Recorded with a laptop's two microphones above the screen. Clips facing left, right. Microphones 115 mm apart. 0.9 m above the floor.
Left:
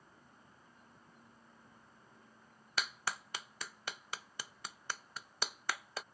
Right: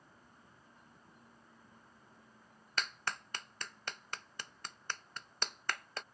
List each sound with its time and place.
2.8 s a clap: 5° left (ahead or behind)